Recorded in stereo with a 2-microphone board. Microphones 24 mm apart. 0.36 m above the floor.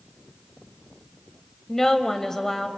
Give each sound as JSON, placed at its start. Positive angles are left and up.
{"t": 1.7, "sound": "a woman speaking", "side_deg": 20, "distance_m": 1.3}